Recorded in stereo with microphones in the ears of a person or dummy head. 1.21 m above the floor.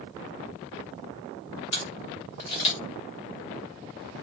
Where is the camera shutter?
30° left (ahead or behind), 0.7 m.